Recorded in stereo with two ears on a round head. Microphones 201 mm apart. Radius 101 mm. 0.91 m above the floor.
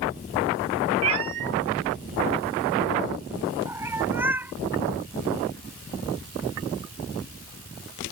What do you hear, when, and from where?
1.0 s a cat meowing: 75° right (ahead or behind); by 4.5 s 10° right (ahead or behind)